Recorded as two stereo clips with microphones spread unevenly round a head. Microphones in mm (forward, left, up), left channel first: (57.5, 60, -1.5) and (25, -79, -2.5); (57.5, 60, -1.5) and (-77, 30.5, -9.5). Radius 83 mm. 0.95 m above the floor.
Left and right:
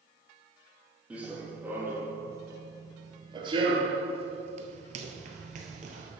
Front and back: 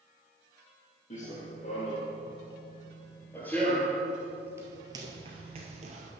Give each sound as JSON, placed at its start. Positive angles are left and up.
{"t": 1.1, "sound": "running footsteps", "azimuth_deg": -25, "distance_m": 2.0}